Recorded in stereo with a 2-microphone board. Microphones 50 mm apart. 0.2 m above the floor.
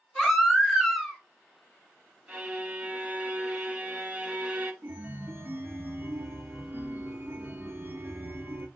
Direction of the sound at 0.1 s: Centre (ahead or behind).